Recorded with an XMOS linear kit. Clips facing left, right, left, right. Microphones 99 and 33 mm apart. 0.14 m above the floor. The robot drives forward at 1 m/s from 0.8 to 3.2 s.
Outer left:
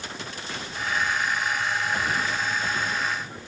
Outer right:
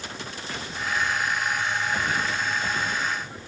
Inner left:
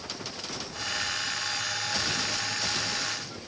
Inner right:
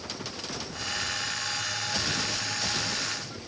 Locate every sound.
Only background noise.